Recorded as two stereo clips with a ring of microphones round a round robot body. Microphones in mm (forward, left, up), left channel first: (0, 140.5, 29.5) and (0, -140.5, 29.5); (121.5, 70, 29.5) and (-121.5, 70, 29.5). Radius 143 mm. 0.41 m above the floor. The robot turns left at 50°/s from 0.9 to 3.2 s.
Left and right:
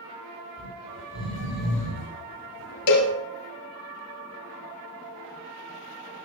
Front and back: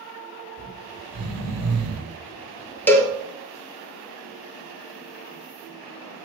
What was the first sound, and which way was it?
Snoring, straight behind.